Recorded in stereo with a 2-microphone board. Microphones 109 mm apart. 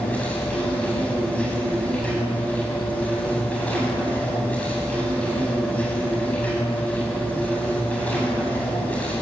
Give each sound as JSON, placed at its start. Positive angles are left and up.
{"t": 0.0, "sound": "an insect", "side_deg": 15, "distance_m": 9.5}